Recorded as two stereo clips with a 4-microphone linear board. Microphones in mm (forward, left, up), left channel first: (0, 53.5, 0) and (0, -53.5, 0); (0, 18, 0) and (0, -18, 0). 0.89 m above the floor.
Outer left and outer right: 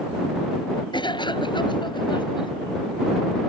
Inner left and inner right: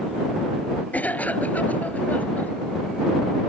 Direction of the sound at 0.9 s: 45° left (ahead or behind).